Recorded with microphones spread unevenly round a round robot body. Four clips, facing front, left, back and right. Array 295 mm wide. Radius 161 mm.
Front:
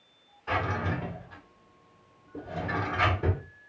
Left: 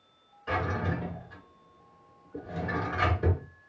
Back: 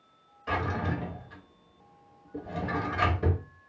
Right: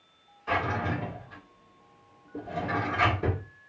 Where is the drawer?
165° left, 1.0 m.